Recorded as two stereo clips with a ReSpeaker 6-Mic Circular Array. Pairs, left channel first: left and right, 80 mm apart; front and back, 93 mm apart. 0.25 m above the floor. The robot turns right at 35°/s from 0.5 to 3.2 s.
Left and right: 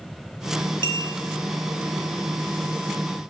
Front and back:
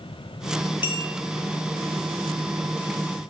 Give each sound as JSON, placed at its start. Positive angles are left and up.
{"t": 0.8, "sound": "a clink", "azimuth_deg": 30, "distance_m": 4.5}